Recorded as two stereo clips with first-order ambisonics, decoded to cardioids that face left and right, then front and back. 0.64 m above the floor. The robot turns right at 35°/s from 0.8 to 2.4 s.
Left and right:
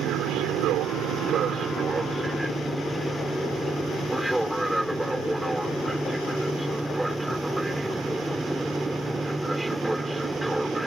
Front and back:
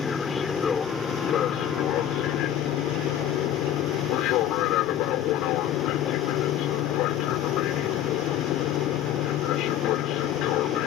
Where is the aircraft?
65° right; by 10.9 s 10° right.